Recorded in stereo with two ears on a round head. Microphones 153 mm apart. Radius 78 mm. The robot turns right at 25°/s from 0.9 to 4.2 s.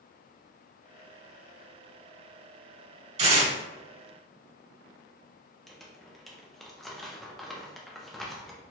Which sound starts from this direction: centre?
Crumpling, at 5.7 s.